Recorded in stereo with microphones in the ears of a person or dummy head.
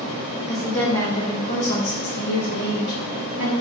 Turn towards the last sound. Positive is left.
turn(degrees=75)  # may be behind; listen again after turning